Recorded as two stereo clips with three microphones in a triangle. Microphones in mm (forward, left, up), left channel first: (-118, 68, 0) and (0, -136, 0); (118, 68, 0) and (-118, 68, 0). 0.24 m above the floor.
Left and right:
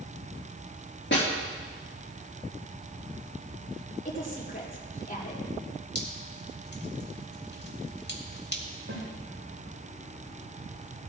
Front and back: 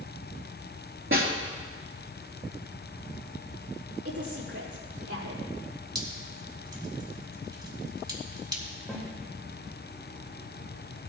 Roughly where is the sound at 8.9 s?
Right.